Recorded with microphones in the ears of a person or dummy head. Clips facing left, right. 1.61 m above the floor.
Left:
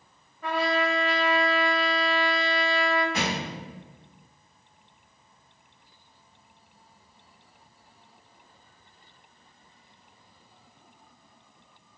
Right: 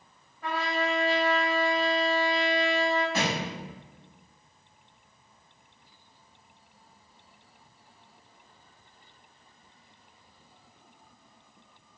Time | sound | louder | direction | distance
0.4 | a trumpet | left 4 dB | 80° left | 1.3 m
3.1 | a thud | even | 15° left (ahead or behind) | 1.9 m